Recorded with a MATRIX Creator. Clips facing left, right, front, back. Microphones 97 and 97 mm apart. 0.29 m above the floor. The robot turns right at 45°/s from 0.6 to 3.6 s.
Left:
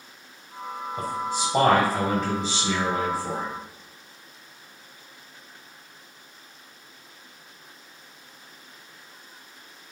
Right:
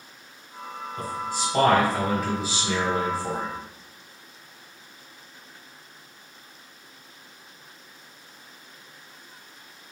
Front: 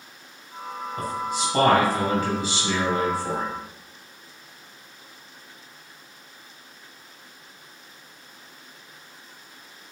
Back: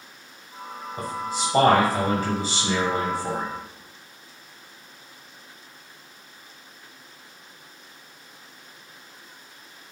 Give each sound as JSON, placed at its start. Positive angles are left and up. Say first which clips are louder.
{"t": 1.0, "sound": "a man speaking", "louder": "left 1 dB, front 1 dB", "azimuth_deg": 130, "distance_m": 1.5}